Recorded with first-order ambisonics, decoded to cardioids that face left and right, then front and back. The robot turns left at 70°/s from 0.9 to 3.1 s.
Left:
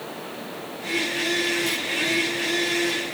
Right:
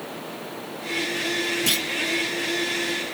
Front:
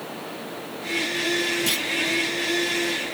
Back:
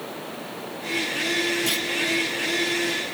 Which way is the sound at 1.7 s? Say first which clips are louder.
Right 3 dB, front 1 dB; 75° right.